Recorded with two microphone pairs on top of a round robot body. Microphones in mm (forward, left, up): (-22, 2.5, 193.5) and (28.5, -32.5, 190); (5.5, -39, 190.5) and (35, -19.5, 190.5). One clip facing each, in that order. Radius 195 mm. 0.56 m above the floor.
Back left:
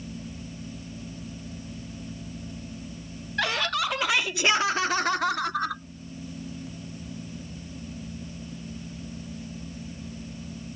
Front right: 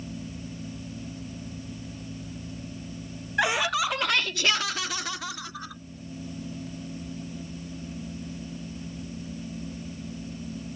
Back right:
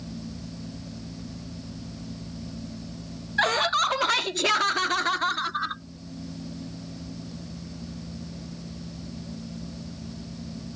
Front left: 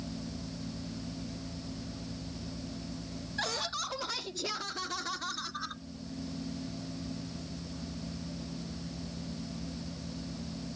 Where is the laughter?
105° right; by 5.8 s 165° left.